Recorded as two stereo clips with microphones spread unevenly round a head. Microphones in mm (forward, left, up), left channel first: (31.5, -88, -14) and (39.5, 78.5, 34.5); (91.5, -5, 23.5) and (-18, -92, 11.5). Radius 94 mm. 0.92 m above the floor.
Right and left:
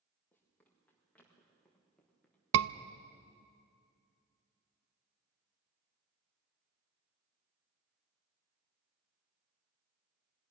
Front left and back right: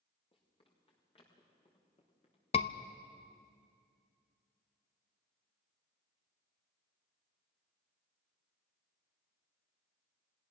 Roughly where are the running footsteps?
Ahead.